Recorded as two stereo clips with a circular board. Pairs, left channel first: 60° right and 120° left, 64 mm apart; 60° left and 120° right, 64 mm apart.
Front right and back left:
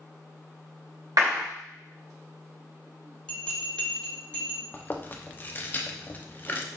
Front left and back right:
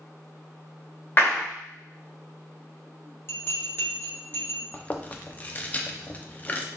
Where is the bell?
10° left, 1.1 m.